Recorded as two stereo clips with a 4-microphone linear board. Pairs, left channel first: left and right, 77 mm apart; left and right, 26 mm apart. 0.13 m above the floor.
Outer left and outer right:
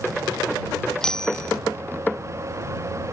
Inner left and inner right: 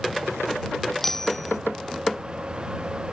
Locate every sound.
1.0 s a bicycle bell: 10° left (ahead or behind)